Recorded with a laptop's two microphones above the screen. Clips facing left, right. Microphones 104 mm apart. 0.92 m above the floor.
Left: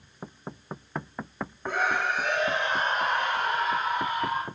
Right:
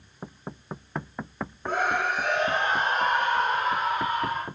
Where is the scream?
60° right (ahead or behind), 2.5 m; by 4.5 s 65° right (ahead or behind), 4 m.